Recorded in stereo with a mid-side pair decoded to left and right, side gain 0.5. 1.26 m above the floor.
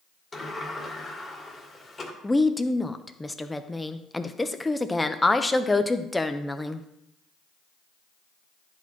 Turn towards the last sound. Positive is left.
turn(degrees=10)